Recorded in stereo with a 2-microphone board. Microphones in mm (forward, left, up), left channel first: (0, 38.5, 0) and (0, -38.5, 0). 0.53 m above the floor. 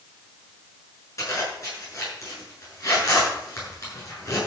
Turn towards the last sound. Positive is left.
turn(degrees=40)  # may be behind; listen again after turning